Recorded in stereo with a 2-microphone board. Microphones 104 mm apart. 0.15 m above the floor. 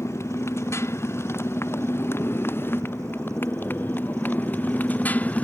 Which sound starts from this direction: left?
A motorcycle, at 0.0 s.